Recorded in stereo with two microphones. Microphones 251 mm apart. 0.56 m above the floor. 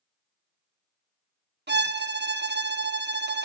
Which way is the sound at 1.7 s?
45° right (ahead or behind).